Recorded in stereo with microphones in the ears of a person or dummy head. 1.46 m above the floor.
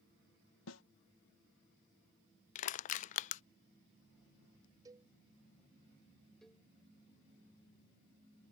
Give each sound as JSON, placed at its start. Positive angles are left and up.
{"t": 0.7, "sound": "a snare drum", "side_deg": 75}
{"t": 2.5, "sound": "crushing", "side_deg": 45}
{"t": 4.8, "sound": "a cowbell", "side_deg": -25}
{"t": 6.4, "sound": "a cowbell", "side_deg": 0}